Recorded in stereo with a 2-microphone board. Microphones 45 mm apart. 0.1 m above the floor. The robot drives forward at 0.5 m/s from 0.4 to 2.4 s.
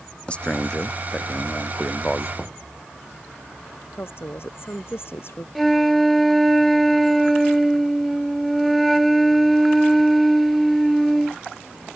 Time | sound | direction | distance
0.3 | a man speaking | 25° left (ahead or behind) | ?
2.4 | knocking | 10° left (ahead or behind) | ?
4.0 | a woman speaking | 60° left (ahead or behind) | ?
5.5 | a flute | centre (ahead or behind) | ?